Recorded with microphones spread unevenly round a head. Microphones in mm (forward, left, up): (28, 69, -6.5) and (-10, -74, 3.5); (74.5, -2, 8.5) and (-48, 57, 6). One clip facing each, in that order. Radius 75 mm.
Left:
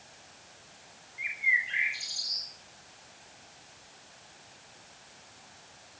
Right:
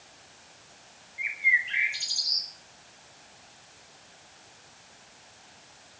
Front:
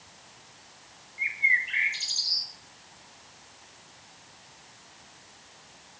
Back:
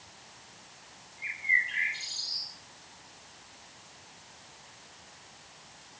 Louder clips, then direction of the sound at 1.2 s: Right 3 dB, front 3 dB; 50° right.